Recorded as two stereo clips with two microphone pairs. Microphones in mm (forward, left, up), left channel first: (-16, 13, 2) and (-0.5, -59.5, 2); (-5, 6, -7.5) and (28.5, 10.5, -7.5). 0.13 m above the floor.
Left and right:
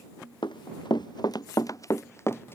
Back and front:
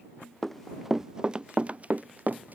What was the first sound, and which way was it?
Running footsteps, 105° left.